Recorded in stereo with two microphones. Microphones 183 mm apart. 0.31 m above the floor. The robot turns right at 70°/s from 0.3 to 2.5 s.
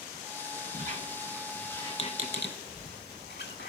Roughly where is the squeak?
Right.